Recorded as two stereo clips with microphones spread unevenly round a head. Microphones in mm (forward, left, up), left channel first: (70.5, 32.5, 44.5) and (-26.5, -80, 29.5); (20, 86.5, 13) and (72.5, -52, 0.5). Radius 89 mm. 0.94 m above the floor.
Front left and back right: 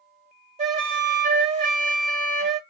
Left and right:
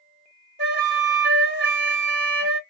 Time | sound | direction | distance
0.6 | a flute | 90° right | 1.4 m